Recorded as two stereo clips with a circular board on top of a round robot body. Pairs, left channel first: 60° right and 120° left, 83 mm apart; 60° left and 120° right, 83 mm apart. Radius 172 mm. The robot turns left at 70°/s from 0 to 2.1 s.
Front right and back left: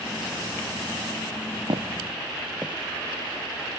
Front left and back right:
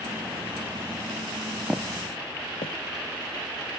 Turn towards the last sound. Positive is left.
turn(degrees=10)